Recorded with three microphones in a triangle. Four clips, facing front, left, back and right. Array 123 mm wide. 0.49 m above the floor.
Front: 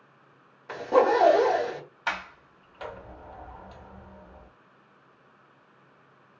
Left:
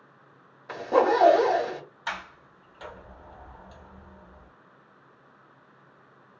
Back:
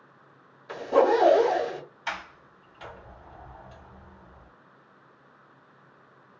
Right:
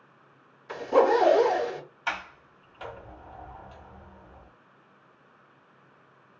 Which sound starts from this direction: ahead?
A sliding door, at 2.1 s.